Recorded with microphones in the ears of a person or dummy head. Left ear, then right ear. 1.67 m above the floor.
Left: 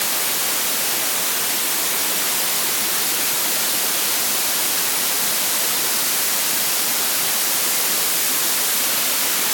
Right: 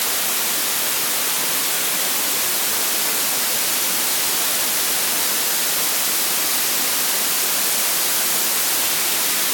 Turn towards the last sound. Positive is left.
No sound to turn to.